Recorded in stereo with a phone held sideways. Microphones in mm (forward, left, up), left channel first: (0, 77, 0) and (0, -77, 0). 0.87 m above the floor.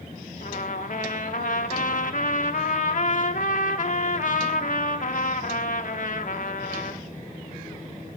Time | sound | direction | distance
0.4 | a trumpet | 60° left (ahead or behind) | 0.7 m